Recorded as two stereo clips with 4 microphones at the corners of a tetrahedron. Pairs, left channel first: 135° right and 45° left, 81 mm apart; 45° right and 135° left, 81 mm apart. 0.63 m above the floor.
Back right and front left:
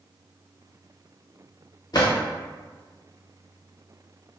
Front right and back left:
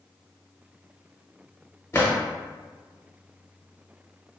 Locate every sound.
1.9 s a drawer: 100° right, 0.9 m